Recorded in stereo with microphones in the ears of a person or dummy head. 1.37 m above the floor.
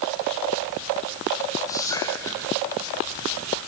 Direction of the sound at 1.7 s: 15° left (ahead or behind).